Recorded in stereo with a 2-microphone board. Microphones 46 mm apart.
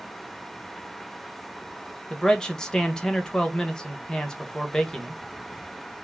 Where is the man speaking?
15° left (ahead or behind), 1.3 m.